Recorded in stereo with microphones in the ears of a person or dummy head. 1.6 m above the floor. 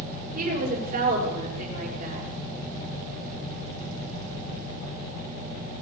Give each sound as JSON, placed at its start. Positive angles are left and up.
{"t": 0.3, "sound": "a woman speaking", "side_deg": -45, "distance_m": 5.5}